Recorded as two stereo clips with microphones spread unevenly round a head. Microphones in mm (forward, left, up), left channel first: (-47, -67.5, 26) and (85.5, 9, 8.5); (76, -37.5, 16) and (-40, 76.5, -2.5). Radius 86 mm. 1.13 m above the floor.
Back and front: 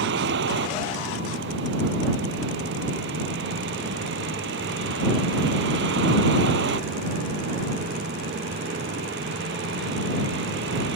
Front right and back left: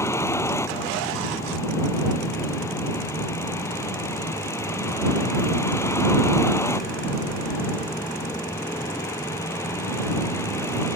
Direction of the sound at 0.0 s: 30° left.